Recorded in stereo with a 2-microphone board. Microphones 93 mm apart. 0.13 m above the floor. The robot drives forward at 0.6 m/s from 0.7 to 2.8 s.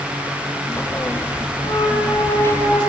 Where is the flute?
85° left, 4 m; by 2.9 s 75° left (ahead or behind), 4 m.